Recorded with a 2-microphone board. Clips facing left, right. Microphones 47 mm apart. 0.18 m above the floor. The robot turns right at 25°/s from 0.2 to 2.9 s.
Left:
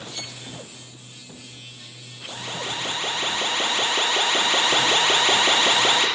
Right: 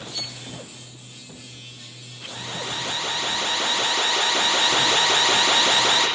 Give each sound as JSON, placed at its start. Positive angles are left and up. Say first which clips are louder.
{"t": 0.1, "sound": "a violin", "louder": "right 1 dB", "side_deg": 45, "distance_m": 0.9}
{"t": 2.3, "sound": "an alarm", "louder": "left 1 dB", "side_deg": 60, "distance_m": 8.5}